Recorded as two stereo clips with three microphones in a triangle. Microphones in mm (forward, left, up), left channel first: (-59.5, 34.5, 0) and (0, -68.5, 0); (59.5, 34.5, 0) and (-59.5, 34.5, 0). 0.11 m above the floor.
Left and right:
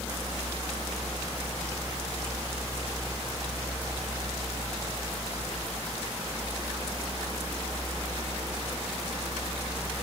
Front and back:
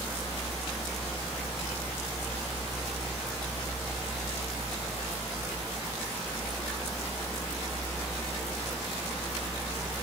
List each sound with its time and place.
Only background noise.